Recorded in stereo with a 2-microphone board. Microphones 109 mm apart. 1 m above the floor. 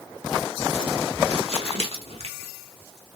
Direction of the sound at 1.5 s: 70° right (ahead or behind).